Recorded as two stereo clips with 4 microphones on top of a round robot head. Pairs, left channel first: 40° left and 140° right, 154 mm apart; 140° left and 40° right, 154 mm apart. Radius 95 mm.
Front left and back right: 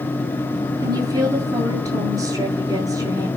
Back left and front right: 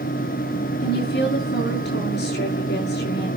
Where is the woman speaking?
155° left, 8 m.